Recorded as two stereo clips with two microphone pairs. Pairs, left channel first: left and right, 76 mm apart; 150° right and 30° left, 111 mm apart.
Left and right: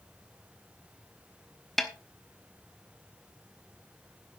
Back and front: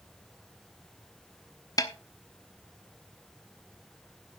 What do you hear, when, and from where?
1.8 s a snare drum: straight behind, 1.1 m